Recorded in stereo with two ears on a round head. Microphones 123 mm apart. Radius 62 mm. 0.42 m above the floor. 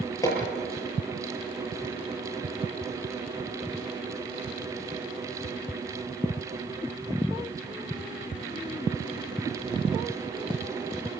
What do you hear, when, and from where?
0.2 s hammering: 25° left (ahead or behind), 7 m